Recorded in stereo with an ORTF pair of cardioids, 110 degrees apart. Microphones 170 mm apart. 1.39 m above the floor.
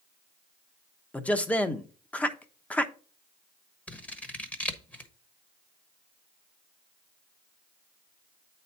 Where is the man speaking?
10° left, 1.0 m.